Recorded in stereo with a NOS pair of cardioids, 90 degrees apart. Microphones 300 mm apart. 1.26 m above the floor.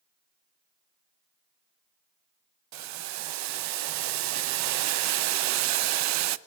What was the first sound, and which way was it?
Boiling, 65° right.